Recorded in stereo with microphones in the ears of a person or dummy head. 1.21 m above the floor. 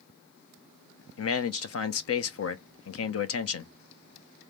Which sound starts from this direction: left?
A man speaking, at 1.2 s.